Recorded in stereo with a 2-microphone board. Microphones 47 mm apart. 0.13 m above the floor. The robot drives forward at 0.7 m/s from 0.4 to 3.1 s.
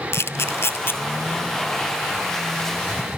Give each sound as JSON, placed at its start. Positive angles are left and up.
{"t": 0.1, "sound": "a camera shutter", "side_deg": 70, "distance_m": 0.6}